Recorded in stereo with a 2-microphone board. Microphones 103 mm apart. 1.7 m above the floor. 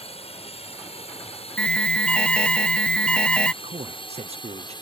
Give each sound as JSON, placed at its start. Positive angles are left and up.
{"t": 0.0, "sound": "a drone", "side_deg": 80}
{"t": 1.6, "sound": "an alarm", "side_deg": 10}
{"t": 3.6, "sound": "a man speaking", "side_deg": -80}